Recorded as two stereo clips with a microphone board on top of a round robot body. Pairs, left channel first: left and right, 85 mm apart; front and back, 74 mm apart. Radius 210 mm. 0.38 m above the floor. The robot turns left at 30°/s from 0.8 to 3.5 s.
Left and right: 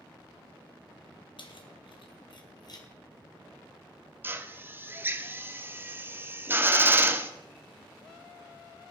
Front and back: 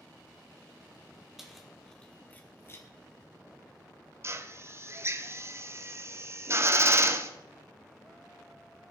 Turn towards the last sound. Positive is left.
turn(degrees=-145)